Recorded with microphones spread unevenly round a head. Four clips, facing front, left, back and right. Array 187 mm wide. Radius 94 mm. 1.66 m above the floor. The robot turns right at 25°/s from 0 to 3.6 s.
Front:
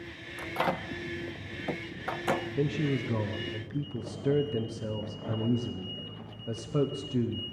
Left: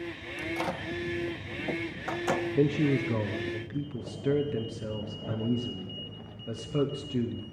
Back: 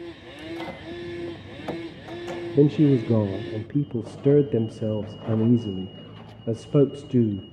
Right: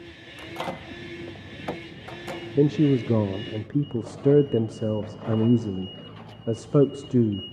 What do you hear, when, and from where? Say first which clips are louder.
0.4 s a microwave: even, front 4 dB; 25° right, 1.0 m; by 2.5 s 25° left, 1.0 m
2.5 s a man speaking: right 8 dB, back 12 dB; 150° right, 0.5 m; by 7.5 s 125° right, 0.5 m